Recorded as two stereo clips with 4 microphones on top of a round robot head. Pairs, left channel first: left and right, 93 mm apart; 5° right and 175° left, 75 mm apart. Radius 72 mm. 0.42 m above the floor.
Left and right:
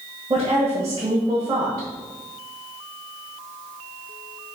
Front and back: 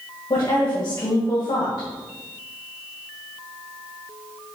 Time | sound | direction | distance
0.3 | a woman speaking | 35° right | 1.9 m